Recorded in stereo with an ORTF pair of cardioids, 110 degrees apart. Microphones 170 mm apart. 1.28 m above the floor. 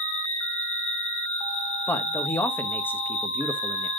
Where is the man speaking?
10° left, 1.6 m.